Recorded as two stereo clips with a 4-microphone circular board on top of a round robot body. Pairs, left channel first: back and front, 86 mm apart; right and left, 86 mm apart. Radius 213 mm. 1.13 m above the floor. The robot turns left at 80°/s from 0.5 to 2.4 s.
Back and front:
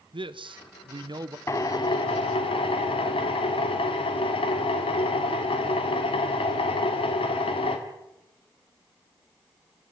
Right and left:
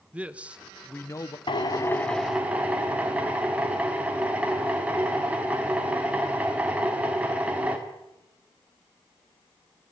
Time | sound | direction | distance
0.1 | a man speaking | 15° left | 0.9 m
1.5 | a drill | 120° right | 1.4 m